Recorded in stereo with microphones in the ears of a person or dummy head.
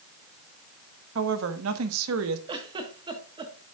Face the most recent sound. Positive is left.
turn(degrees=-25)  # may be behind; listen again after turning